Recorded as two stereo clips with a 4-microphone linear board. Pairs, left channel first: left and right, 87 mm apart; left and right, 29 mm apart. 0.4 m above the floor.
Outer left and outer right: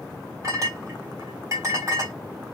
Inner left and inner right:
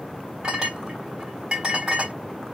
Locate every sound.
0.4 s a clink: 40° right (ahead or behind), 1.9 m